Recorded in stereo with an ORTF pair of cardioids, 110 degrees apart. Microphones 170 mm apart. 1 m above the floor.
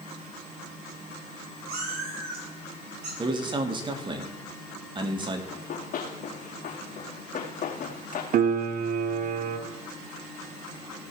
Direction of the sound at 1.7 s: 65° right.